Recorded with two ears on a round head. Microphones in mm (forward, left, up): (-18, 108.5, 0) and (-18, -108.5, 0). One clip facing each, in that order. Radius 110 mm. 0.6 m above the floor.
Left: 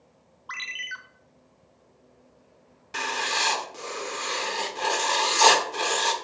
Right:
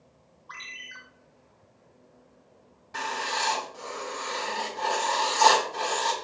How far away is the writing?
About 1.0 m.